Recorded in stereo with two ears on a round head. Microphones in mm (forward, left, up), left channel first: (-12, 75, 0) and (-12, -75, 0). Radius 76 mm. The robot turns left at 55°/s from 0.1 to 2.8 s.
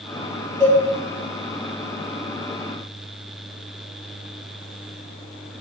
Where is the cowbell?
40° right (ahead or behind), 1.5 m; by 0.8 s 35° right (ahead or behind), 1.5 m.